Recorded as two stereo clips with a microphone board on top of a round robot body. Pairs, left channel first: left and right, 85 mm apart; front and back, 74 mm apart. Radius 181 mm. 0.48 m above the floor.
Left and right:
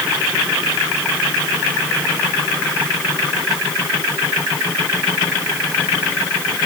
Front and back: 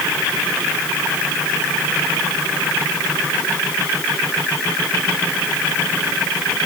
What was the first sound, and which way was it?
Only background noise.